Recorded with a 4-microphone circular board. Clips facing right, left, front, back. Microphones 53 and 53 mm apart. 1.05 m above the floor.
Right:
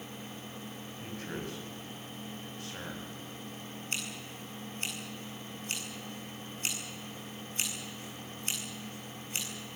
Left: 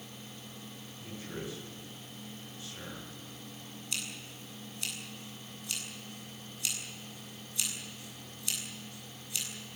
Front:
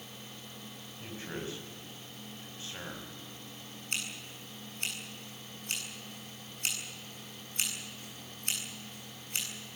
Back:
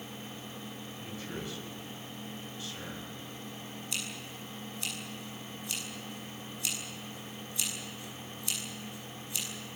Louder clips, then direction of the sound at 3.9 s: Right 1 dB, front 3 dB; 40° right.